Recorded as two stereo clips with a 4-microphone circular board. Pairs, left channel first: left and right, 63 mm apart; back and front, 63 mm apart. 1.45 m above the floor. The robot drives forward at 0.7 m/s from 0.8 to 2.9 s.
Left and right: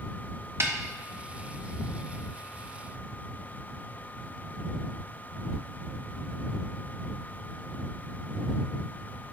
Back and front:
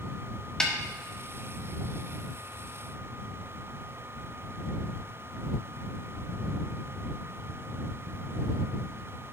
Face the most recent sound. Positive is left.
turn(degrees=-160)